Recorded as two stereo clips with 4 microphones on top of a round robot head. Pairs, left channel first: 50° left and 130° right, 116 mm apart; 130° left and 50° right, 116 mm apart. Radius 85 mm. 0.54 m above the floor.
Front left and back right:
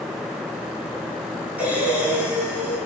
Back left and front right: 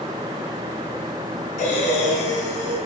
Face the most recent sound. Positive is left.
turn(degrees=150)